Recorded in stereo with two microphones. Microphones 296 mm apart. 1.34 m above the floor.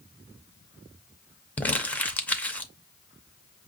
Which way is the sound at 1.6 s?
5° left (ahead or behind).